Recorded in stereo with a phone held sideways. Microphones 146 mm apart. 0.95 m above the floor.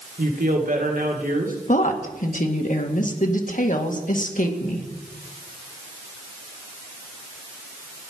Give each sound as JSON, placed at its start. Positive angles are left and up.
{"t": 0.2, "sound": "a woman speaking", "side_deg": -70, "distance_m": 2.5}
{"t": 1.7, "sound": "a woman speaking", "side_deg": 65, "distance_m": 1.8}